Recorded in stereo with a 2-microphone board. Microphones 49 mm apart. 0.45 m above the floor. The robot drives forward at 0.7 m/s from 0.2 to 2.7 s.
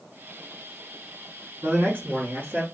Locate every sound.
1.6 s a man speaking: 40° right (ahead or behind), 3.5 m; by 2.6 s 35° right (ahead or behind), 4 m